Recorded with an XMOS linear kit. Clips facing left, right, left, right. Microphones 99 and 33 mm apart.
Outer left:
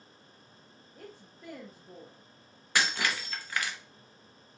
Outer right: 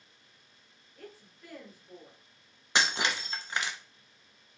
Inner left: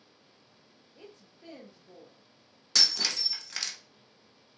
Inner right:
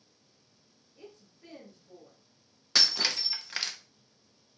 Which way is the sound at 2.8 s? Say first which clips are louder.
Outer right 1 dB, inner right 1 dB; 25° right (ahead or behind).